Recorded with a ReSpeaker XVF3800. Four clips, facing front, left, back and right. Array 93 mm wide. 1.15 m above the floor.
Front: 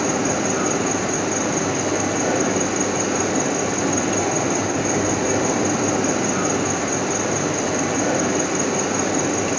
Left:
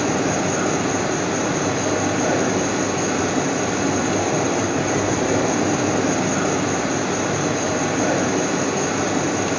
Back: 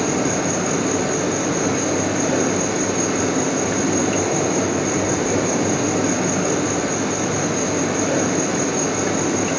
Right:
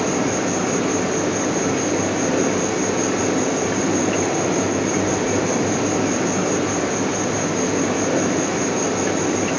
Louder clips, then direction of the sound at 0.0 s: Even, back 1 dB; 70° left.